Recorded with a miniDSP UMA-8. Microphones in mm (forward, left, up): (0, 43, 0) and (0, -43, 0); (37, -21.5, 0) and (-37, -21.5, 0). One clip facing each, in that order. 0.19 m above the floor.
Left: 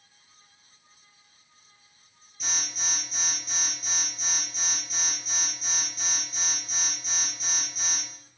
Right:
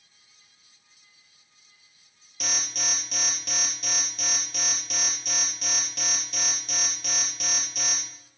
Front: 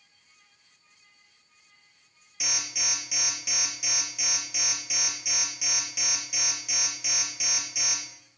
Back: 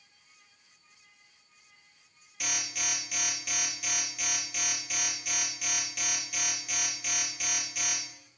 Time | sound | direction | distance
2.4 | an alarm | 85° right | 3 m